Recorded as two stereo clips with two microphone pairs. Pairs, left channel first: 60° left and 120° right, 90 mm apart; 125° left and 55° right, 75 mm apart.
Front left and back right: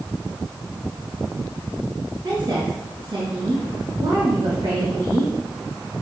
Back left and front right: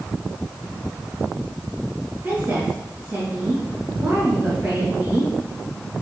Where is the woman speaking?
110° right, 2.5 m.